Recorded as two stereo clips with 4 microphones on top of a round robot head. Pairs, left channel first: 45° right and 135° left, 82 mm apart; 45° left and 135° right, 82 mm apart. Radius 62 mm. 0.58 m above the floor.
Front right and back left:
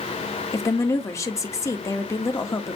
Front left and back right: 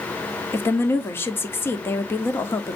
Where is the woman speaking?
5° right, 1.6 m.